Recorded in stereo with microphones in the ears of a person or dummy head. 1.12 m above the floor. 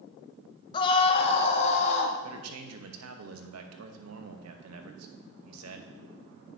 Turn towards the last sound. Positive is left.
turn(degrees=-85)